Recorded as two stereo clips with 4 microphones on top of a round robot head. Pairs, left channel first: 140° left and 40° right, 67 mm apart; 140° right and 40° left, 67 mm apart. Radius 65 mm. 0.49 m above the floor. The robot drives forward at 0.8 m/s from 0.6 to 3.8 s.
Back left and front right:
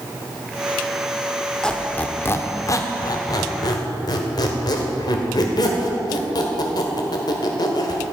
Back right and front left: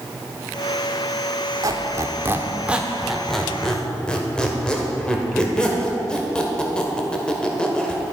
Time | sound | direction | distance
1.6 | a squeak | 60° left | 1.2 m